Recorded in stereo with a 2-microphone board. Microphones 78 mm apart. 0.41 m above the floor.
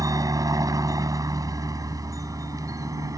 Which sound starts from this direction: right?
A helicopter, at 0.0 s.